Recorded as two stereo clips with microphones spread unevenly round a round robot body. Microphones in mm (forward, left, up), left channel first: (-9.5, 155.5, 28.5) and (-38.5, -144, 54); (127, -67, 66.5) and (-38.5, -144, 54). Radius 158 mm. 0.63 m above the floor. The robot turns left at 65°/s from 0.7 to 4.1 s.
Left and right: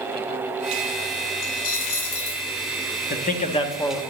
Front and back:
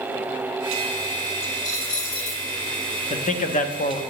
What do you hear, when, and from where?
1.4 s a dropped coin: 95° left, 1.1 m; by 2.5 s 25° left, 1.1 m
3.1 s a man speaking: 60° left, 0.8 m; by 4.0 s 5° left, 0.8 m